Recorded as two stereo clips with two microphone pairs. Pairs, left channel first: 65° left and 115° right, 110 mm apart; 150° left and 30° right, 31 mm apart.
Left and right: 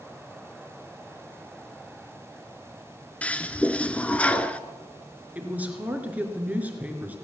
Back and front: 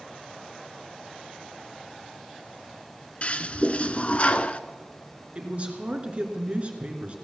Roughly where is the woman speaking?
Ahead right.